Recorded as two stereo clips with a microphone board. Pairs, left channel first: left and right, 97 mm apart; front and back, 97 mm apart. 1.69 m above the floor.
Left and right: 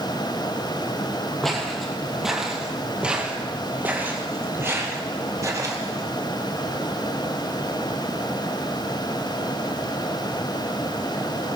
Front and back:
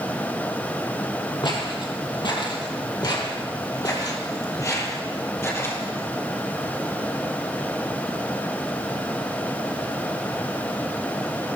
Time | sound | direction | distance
1.4 | footsteps | 5° left | 3 m